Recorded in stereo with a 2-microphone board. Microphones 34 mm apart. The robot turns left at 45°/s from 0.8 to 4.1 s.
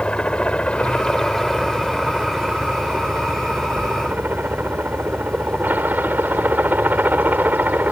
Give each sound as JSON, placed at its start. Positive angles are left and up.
{"t": 0.0, "sound": "a helicopter", "side_deg": 35}